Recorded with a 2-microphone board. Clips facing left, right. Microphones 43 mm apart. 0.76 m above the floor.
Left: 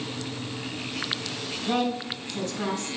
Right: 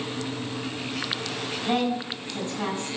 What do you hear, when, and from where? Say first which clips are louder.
1.7 s a woman speaking: right 1 dB; 30° right (ahead or behind), 6 m